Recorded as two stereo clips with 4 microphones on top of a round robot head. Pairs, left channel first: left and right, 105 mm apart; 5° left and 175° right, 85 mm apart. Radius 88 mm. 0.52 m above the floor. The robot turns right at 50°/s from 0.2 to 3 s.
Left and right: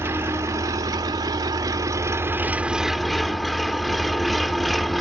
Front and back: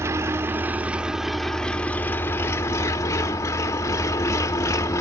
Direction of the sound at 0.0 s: 140° right.